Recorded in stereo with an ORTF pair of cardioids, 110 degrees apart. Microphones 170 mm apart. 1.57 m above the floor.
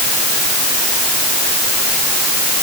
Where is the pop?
No pop in this recording.